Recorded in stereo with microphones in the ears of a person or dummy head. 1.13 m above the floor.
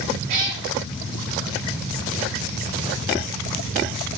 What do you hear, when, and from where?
0.3 s a cat meowing: 55° right (ahead or behind), 5 m